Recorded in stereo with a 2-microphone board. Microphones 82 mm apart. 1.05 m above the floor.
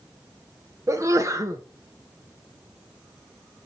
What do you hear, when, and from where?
0.9 s a sneeze: 40° right (ahead or behind), 0.9 m